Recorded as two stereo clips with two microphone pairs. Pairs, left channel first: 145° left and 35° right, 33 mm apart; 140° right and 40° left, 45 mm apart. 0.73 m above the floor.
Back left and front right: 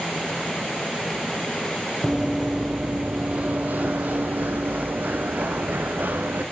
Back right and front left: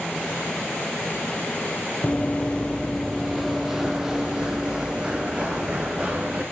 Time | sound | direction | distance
2.0 | running footsteps | 120° right | 0.8 m